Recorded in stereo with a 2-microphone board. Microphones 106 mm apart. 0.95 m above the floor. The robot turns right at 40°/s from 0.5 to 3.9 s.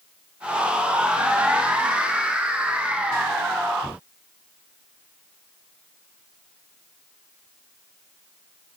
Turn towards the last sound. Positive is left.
No sound to turn to.